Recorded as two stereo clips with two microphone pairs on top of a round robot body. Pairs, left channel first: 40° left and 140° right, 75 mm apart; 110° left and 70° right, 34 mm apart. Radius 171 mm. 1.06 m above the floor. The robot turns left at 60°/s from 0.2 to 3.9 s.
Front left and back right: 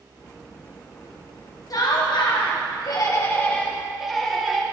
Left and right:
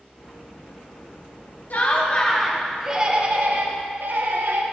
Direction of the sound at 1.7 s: 75° left.